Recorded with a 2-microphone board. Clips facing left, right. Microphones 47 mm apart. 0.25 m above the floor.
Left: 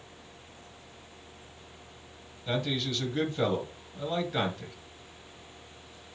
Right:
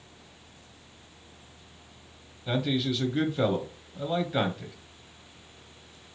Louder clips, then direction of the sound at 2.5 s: Right 3 dB; 5° right (ahead or behind).